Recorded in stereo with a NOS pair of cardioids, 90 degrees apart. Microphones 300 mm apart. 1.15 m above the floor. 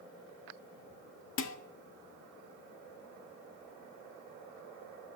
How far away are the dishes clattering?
About 1.6 m.